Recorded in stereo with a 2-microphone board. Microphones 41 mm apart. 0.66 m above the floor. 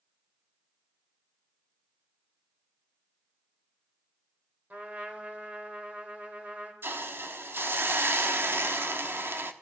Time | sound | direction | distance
4.7 | a trumpet | 40° right (ahead or behind) | 3 m
6.8 | a hiss | 55° right (ahead or behind) | 1.0 m